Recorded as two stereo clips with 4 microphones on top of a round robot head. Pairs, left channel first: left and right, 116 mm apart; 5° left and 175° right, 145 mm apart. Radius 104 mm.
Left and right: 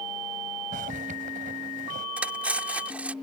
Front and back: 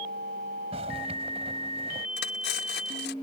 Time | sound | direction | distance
0.7 | a zipper | 115° right | ?
2.2 | cutlery clinking | 10° right | ?